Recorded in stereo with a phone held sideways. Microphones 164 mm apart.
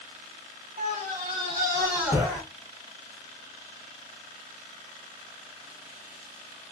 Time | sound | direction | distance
0.8 | a scream | 45° right (ahead or behind) | 1.1 m